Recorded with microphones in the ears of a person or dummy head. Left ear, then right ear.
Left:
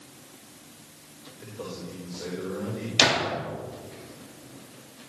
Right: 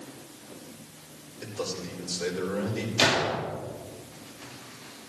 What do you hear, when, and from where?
1.4 s a man speaking: 75° right (ahead or behind), 4.5 m
3.0 s a gunshot: 20° left (ahead or behind), 3.5 m